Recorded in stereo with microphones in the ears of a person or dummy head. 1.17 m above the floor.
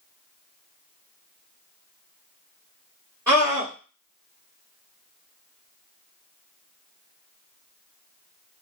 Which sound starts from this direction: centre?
A scream, at 3.3 s.